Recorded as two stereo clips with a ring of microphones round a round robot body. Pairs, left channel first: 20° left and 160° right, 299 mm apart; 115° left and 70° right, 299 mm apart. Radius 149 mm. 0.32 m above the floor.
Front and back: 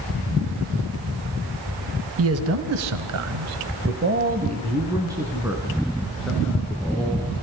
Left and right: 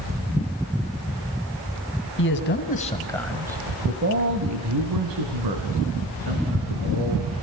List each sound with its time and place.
2.2 s a man speaking: 160° left, 2.5 m; by 7.3 s 65° right, 5.5 m